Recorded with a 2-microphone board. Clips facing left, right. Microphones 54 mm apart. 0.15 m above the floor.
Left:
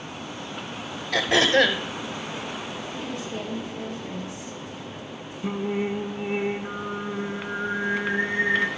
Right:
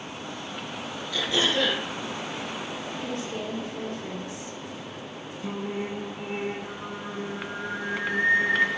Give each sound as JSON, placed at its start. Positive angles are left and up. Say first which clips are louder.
{"t": 1.1, "sound": "throat clearing", "louder": "left 6 dB", "side_deg": 60, "distance_m": 1.3}
{"t": 3.0, "sound": "a woman speaking", "louder": "right 1 dB", "side_deg": -55, "distance_m": 3.0}
{"t": 5.4, "sound": "singing", "louder": "left 5 dB", "side_deg": 20, "distance_m": 1.1}